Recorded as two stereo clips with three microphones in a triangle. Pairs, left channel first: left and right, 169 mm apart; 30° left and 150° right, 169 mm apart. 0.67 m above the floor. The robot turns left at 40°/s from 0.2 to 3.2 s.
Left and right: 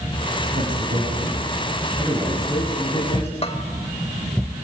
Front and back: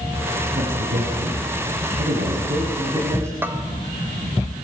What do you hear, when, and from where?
0.6 s a man speaking: 115° right, 4 m; by 3.3 s 135° left, 4 m
3.4 s a bell: 135° left, 1.7 m